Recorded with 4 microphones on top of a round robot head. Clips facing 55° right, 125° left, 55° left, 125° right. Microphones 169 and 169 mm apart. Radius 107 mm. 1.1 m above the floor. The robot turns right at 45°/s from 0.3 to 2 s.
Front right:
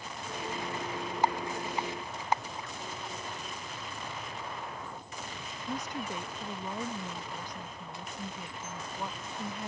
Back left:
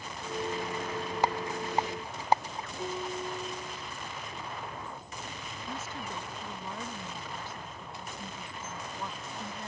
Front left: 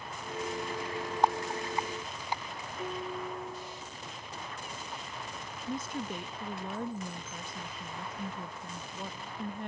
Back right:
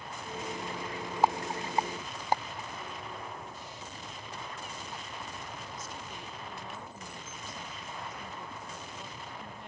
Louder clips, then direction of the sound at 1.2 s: Front right 1 dB, back right 1 dB; 150° left.